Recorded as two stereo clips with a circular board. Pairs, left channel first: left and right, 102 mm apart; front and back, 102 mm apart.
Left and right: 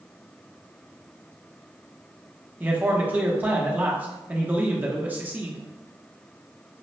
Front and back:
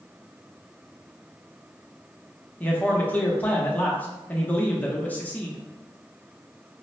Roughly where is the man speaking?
Ahead right.